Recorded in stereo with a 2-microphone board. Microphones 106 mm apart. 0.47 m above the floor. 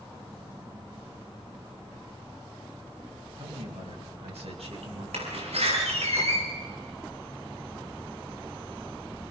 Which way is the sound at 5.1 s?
85° right.